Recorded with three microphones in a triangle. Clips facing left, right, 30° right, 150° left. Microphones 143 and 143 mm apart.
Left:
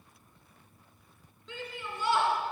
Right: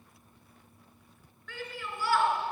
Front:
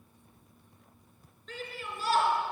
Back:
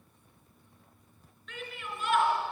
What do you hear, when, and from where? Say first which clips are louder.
1.5 s a shout: even, front 1 dB; 20° left, 3 m